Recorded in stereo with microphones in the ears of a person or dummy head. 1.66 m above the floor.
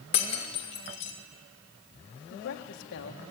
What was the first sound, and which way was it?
Breaking glass, 35° left (ahead or behind).